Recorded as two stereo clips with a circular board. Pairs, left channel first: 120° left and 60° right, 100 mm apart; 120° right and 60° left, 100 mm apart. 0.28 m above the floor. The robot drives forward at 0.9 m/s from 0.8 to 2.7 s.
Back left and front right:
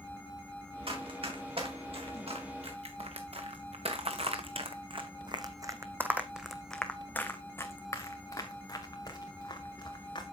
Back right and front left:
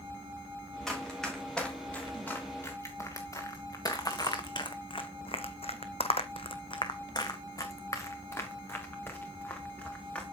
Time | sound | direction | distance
0.9 | running footsteps | 35° right | 4.5 m